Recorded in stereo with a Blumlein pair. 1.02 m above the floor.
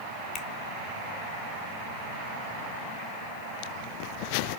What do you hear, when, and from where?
0.3 s a finger snap: 30° left, 3 m